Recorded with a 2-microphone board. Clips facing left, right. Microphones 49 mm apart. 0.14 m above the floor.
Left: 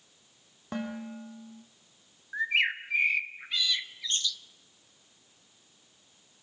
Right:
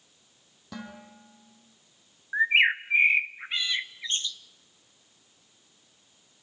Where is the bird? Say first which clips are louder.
Right 6 dB; 30° right (ahead or behind), 0.7 m.